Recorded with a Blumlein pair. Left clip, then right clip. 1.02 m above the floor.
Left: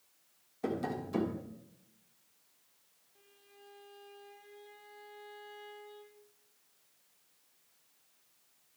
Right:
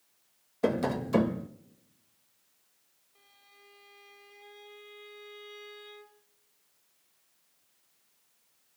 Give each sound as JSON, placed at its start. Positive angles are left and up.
{"t": 0.6, "sound": "tapping", "azimuth_deg": -45, "distance_m": 0.9}
{"t": 3.1, "sound": "a violin", "azimuth_deg": -20, "distance_m": 2.0}